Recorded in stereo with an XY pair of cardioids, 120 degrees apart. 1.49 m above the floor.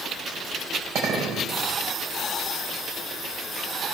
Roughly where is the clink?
Ahead right.